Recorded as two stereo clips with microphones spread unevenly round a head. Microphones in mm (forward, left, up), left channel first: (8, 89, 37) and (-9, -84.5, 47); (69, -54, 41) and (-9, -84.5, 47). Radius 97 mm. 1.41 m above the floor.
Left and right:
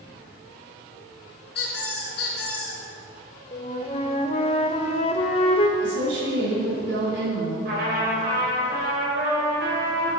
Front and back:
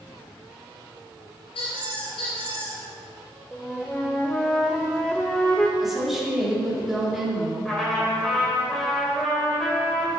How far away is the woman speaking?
About 3.5 m.